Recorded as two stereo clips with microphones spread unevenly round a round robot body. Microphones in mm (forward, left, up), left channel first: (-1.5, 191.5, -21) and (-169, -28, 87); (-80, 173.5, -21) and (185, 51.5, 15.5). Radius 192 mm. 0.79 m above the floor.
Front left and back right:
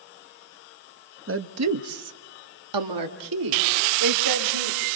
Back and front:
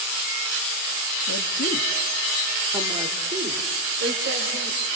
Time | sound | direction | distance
1.3 | a woman speaking | straight behind | 1.5 m